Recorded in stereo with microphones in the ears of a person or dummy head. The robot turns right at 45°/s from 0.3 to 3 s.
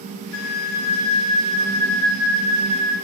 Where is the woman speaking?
No woman speaking in this recording.